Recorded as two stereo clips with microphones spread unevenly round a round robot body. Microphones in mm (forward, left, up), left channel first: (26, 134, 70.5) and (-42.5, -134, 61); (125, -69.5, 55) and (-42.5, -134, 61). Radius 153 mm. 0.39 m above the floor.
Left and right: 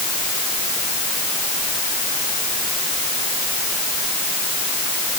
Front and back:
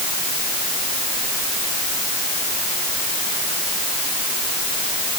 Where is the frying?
No frying in this recording.